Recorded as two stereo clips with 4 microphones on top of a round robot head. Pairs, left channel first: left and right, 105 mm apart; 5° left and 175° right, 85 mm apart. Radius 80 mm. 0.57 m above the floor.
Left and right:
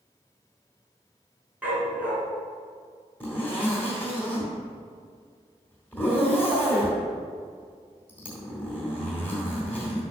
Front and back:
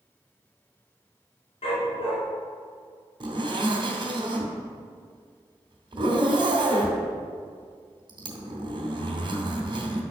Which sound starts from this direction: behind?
A zipper, at 3.2 s.